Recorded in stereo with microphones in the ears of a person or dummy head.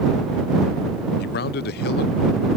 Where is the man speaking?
45° left (ahead or behind).